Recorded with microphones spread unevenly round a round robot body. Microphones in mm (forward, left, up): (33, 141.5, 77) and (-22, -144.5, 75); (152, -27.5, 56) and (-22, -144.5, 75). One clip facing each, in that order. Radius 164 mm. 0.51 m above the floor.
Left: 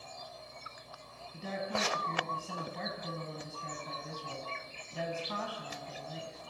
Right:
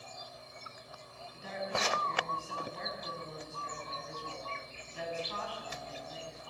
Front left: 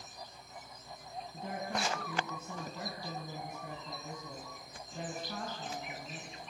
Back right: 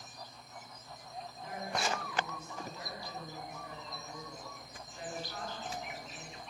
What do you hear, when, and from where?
1.3 s a woman speaking: 90° left, 4.5 m